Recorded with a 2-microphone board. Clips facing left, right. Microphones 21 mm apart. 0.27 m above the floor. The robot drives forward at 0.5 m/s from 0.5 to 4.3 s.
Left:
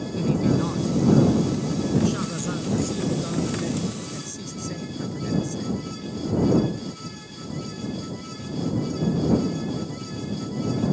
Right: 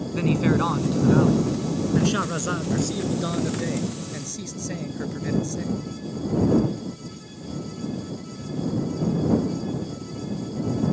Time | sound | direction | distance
0.1 | a man speaking | 35° right (ahead or behind) | ?